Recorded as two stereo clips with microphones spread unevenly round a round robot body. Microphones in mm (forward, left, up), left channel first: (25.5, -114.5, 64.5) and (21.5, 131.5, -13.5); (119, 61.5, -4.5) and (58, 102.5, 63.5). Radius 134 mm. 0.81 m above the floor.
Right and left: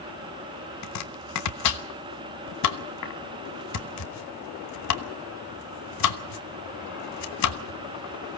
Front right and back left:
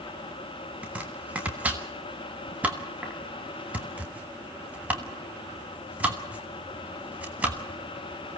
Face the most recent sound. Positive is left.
turn(degrees=-100)